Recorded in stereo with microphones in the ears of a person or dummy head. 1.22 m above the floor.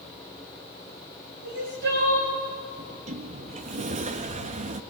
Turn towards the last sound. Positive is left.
turn(degrees=-35)  # may be behind; listen again after turning